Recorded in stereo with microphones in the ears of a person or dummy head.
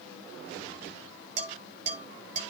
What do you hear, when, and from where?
1.4 s dishes clattering: 35° right (ahead or behind), 5.5 m